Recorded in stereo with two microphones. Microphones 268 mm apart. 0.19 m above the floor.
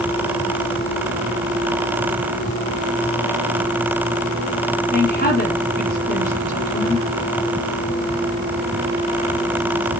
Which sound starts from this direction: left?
A woman speaking, at 4.9 s.